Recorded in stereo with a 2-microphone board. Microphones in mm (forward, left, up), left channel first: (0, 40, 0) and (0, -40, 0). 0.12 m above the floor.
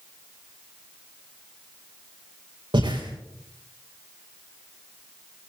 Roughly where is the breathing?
Right.